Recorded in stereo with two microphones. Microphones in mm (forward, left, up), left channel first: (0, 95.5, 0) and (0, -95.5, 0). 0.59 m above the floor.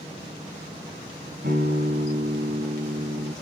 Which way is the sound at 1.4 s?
55° right (ahead or behind).